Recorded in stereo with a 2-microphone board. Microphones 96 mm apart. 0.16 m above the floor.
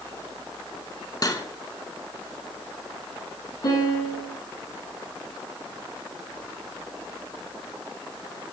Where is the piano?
45° left (ahead or behind), 4.5 m.